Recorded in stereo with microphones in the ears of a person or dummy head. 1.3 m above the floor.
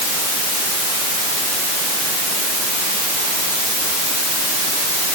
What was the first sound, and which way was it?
Only background noise.